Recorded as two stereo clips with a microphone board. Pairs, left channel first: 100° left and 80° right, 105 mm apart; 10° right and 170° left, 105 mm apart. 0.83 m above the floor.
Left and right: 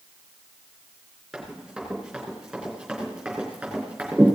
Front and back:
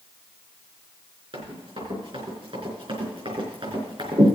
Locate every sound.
1.3 s running footsteps: 165° right, 5.5 m; by 4.4 s 160° right, 3.5 m